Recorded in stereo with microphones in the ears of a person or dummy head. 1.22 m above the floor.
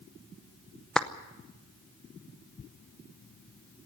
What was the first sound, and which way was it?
A clap, 5° left (ahead or behind).